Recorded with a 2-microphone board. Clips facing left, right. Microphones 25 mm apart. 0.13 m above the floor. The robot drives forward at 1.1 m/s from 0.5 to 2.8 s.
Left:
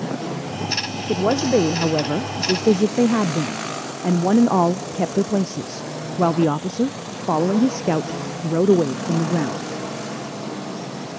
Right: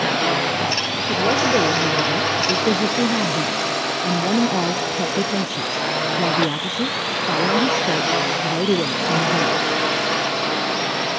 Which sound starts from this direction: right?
A drone, at 0.0 s.